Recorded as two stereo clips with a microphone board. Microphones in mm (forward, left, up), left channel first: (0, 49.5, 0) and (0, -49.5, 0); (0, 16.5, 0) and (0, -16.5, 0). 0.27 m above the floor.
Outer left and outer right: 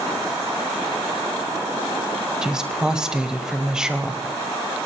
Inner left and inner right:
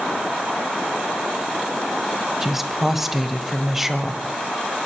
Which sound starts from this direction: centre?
A woman speaking, at 2.4 s.